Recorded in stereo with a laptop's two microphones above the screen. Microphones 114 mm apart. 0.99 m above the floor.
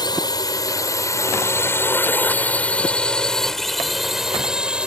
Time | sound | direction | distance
0.0 | a drone | 35° left (ahead or behind) | ?